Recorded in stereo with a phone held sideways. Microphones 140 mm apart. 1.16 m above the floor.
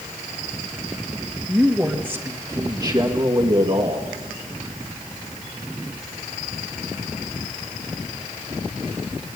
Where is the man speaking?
5° right (ahead or behind), 2 m; by 4.0 s 45° right (ahead or behind), 2 m.